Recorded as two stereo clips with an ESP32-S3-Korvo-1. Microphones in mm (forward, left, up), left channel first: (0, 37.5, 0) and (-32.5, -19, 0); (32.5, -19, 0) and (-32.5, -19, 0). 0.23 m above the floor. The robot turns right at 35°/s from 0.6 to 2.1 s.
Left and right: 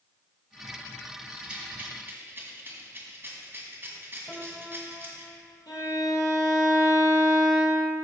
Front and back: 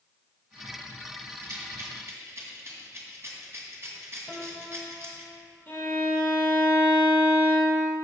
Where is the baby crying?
No baby crying in this recording.